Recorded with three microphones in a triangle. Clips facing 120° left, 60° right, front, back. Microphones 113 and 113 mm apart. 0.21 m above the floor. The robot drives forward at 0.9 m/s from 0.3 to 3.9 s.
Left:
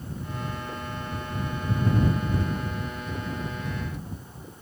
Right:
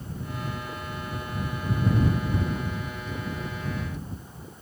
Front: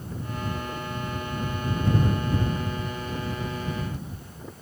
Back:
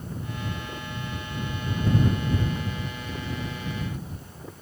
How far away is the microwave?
No microwave in this recording.